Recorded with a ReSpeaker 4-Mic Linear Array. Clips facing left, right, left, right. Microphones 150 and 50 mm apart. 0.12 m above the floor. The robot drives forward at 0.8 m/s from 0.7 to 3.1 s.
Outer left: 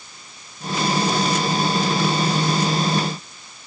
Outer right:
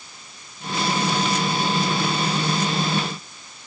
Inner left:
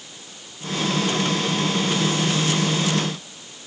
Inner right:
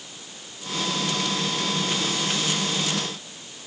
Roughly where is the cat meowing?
No cat meowing in this recording.